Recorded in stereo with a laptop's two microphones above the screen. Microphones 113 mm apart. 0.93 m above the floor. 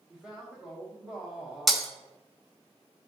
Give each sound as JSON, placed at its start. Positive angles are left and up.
{"t": 0.1, "sound": "a man speaking", "side_deg": -15, "distance_m": 0.9}
{"t": 1.7, "sound": "breaking glass", "side_deg": 0, "distance_m": 1.0}